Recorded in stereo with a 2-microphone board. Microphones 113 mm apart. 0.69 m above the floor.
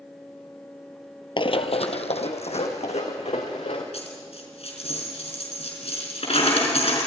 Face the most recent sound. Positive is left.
turn(degrees=70)  # may be behind; listen again after turning